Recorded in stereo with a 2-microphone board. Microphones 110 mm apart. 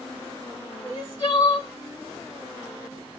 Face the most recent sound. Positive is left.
turn(degrees=45)  # may be behind; listen again after turning